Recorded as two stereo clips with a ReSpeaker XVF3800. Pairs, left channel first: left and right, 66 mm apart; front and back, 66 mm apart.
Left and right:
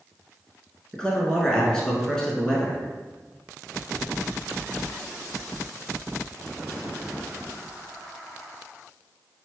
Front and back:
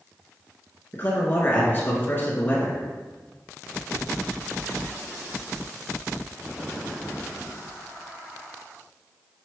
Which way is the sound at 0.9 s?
15° left.